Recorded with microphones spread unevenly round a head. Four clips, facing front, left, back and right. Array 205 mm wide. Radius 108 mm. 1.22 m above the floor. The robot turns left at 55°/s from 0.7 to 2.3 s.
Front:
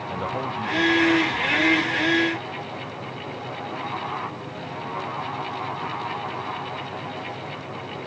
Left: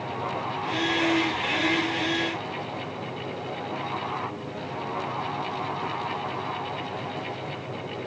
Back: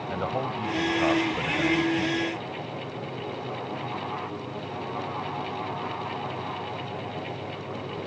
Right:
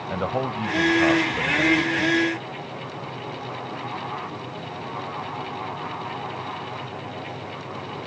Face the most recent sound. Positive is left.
turn(degrees=-165)